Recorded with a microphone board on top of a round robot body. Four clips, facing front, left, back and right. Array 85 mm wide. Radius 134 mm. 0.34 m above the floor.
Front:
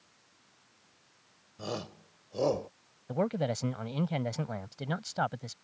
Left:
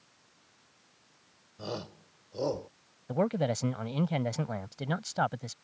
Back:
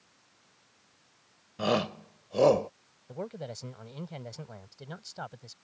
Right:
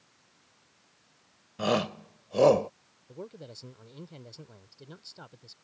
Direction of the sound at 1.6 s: 135° right.